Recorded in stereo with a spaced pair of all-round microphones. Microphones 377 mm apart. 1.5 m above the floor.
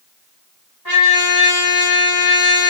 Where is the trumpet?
75° left (ahead or behind), 3.5 m.